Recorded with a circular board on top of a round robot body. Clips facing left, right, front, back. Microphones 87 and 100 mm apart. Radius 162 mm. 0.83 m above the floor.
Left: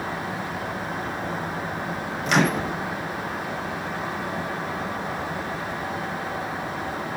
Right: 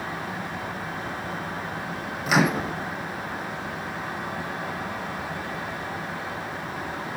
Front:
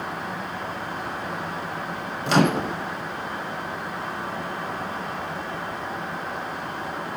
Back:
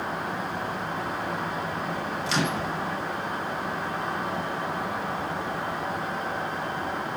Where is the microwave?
5° right, 0.6 m.